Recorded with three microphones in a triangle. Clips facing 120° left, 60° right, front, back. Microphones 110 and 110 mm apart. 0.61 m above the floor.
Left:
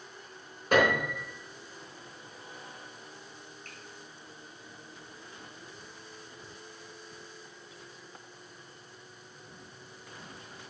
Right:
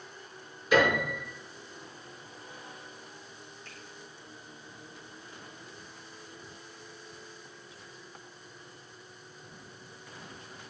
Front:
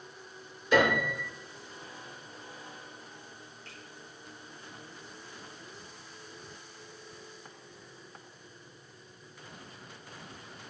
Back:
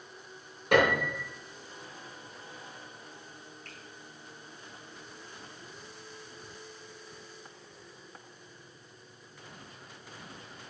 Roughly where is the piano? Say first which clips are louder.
Even, back 1 dB; behind.